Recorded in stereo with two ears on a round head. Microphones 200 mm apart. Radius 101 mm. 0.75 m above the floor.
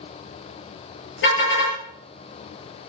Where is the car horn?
60° left (ahead or behind), 8 m.